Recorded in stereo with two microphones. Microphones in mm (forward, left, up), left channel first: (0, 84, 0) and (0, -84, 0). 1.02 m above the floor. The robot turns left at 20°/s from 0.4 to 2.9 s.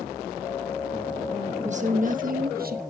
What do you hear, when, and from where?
1.6 s a woman speaking: 45° right (ahead or behind), 0.7 m; by 2.8 s 65° right (ahead or behind), 0.7 m